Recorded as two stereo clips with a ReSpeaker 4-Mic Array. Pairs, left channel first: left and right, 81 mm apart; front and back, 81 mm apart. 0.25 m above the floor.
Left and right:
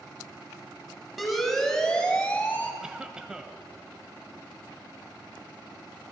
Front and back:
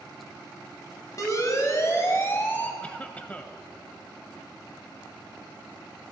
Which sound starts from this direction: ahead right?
A cough, at 2.8 s.